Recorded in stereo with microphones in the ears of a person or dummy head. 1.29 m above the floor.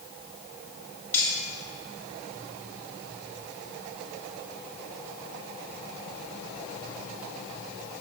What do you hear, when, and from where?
1.1 s cutlery clinking: 10° left (ahead or behind), 2.5 m